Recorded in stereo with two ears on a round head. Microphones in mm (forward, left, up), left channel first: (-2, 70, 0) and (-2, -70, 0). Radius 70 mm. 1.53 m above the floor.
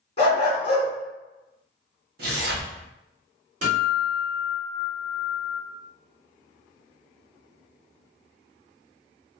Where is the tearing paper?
60° right (ahead or behind), 1.2 m.